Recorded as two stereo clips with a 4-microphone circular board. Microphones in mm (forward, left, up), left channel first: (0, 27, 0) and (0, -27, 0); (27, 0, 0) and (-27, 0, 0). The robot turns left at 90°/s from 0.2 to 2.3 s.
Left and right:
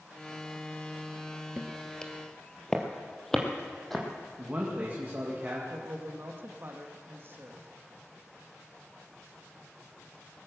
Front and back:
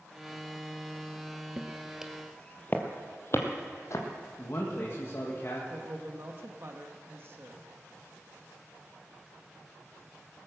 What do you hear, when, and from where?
1.6 s footsteps: 150° right, 1.4 m; by 4.0 s 5° left, 2.5 m
4.4 s a man speaking: 35° right, 1.9 m
5.7 s a woman speaking: 135° right, 1.3 m